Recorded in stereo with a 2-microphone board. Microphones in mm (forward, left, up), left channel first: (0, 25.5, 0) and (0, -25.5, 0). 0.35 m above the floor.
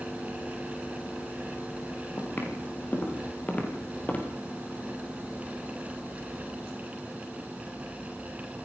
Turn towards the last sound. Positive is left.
turn(degrees=25)  # may be behind; listen again after turning